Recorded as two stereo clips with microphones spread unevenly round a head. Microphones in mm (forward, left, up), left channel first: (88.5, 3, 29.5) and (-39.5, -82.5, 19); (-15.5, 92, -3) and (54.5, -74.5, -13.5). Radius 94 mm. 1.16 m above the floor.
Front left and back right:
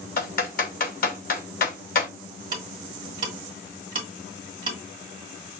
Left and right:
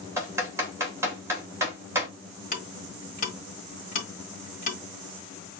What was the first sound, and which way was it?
Typing on a keyboard, 10° left.